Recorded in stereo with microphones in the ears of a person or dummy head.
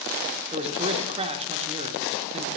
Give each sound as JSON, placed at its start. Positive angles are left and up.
{"t": 0.5, "sound": "a man speaking", "side_deg": -30, "distance_m": 0.7}